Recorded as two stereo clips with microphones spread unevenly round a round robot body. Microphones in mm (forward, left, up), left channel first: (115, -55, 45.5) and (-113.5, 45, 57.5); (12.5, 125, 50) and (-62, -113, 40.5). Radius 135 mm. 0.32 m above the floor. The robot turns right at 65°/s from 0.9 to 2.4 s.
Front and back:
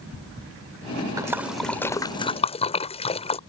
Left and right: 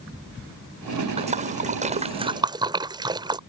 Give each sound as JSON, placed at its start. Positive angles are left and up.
{"t": 1.2, "sound": "a splash", "azimuth_deg": -135}